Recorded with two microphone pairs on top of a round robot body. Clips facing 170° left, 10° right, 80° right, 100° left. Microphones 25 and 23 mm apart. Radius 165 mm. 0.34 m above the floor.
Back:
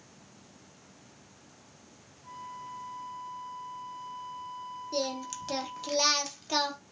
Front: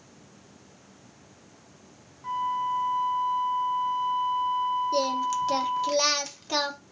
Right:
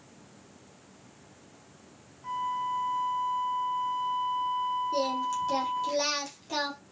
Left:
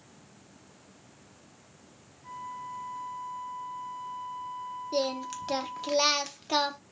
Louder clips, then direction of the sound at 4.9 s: Front 8 dB, right 2 dB; 65° left.